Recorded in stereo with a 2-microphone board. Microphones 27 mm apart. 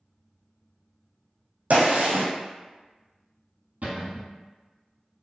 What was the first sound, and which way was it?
A gunshot, 60° right (ahead or behind).